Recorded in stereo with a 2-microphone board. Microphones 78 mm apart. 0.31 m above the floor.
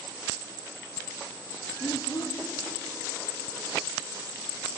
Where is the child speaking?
55° left (ahead or behind), 1.9 m.